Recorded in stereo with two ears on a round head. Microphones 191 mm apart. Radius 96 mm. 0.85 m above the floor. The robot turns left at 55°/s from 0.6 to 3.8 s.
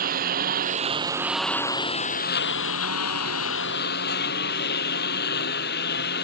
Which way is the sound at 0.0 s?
135° right.